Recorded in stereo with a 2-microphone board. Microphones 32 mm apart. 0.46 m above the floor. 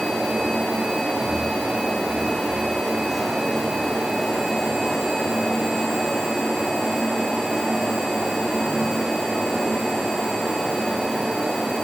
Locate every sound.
Only background noise.